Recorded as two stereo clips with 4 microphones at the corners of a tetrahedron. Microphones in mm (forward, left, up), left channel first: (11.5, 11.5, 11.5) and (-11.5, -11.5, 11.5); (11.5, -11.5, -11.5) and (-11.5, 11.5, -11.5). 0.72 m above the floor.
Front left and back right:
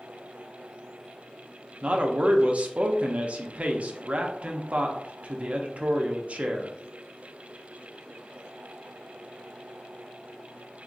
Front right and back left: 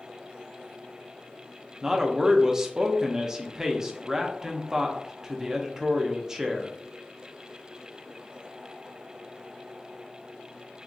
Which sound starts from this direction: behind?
A man speaking, at 1.8 s.